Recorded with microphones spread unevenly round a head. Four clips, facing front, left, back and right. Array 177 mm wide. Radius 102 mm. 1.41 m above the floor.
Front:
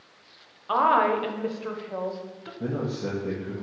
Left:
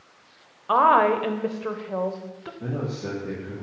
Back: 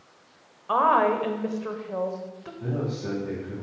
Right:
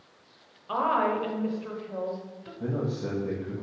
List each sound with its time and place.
0.7 s a woman speaking: 85° left, 0.7 m
2.6 s a man speaking: 20° right, 1.5 m